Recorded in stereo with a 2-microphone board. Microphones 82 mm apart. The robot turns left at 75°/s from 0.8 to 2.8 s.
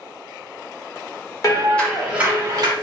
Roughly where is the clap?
Ahead left.